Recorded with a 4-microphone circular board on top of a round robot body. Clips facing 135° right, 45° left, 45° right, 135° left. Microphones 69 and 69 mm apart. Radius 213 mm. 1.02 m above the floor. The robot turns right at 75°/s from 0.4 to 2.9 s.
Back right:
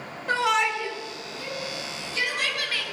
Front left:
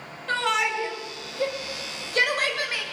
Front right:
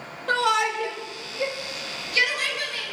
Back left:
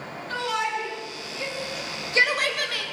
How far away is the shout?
About 5.5 m.